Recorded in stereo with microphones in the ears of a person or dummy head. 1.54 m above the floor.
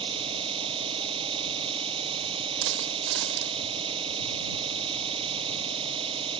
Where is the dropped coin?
65° right (ahead or behind).